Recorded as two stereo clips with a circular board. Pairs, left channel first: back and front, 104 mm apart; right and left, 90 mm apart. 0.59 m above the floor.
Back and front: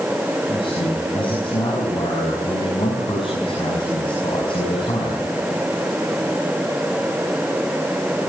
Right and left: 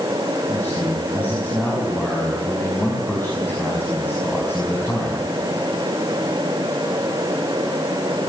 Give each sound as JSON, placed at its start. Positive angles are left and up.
{"t": 0.5, "sound": "a man speaking", "azimuth_deg": -155, "distance_m": 5.5}